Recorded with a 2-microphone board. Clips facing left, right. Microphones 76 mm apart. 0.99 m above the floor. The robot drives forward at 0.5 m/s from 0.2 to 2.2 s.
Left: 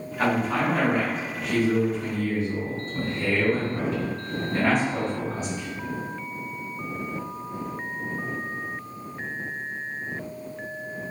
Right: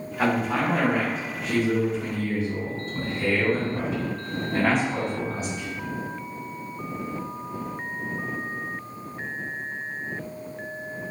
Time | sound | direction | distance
0.2 | a man speaking | 10° right (ahead or behind) | 1.0 m